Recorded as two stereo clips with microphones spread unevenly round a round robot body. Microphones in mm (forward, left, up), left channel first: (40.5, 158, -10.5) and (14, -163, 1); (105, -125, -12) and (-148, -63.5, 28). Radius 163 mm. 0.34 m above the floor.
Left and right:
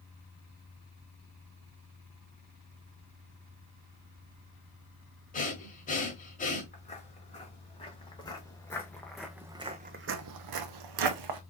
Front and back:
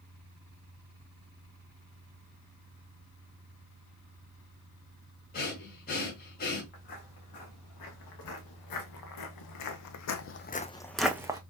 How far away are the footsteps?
About 3 m.